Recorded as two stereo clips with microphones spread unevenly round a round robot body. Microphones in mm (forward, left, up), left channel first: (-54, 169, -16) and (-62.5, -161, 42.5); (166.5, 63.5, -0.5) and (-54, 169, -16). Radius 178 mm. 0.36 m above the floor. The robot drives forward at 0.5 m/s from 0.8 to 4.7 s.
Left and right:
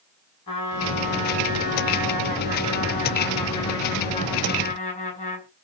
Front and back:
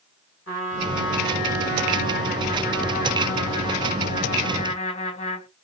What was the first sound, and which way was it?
A trumpet, 15° left.